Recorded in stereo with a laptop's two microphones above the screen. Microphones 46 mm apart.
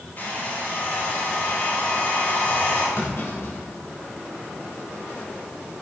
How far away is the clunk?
About 5 m.